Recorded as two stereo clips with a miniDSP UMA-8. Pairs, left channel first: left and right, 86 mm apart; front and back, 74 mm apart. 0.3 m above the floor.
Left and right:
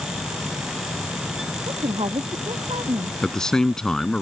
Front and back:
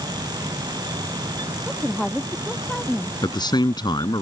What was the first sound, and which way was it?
A woman speaking, 85° right.